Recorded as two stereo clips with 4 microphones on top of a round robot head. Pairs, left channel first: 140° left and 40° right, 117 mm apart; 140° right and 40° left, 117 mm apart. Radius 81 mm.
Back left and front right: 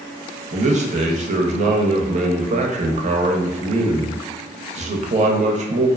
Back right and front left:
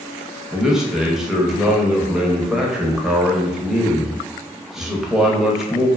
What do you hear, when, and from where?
0.5 s a man speaking: 50° right, 0.6 m